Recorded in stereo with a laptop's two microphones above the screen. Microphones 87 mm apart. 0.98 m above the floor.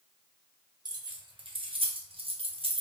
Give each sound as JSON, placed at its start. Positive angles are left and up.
{"t": 0.8, "sound": "keys jangling", "side_deg": -50, "distance_m": 1.2}